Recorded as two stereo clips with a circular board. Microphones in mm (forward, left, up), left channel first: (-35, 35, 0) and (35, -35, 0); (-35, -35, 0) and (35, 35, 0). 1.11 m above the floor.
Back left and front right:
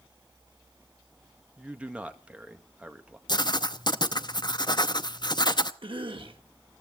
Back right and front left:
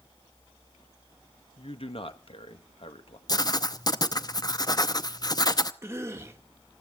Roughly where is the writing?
Behind.